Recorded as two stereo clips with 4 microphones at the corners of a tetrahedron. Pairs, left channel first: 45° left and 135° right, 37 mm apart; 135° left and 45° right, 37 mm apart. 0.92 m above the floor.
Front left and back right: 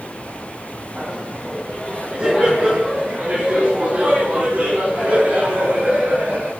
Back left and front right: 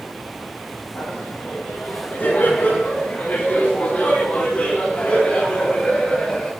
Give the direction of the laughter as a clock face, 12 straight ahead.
7 o'clock.